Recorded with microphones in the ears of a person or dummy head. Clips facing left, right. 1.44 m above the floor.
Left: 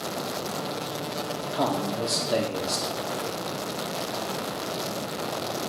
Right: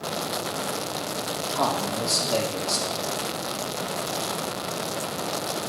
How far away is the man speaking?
About 1.3 m.